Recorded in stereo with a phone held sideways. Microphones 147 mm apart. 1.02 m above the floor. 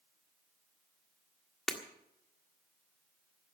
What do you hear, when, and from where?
1.7 s breaking glass: 5° left (ahead or behind), 1.6 m